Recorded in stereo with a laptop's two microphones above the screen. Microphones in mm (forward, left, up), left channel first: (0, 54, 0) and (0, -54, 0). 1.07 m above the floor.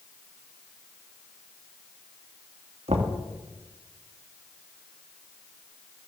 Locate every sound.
2.9 s knocking: 75° right (ahead or behind), 2 m